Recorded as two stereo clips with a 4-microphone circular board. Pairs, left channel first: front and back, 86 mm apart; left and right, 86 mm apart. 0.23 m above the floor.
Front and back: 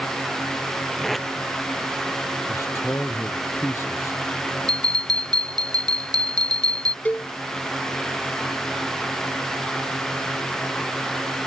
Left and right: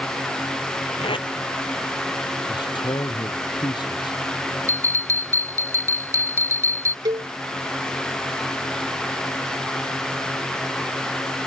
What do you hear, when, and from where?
1.0 s tape being pulled: 90° left
2.5 s a man speaking: 60° left
4.7 s a bell: 145° right
7.0 s a cowbell: 70° right